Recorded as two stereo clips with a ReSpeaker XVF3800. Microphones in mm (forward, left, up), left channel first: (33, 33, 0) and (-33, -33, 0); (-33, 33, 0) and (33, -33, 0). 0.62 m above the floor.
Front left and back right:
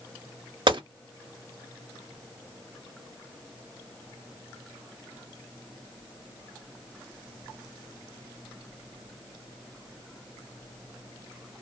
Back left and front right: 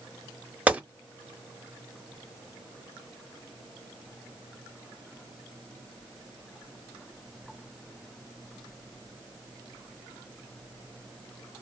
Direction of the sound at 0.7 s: 120° right.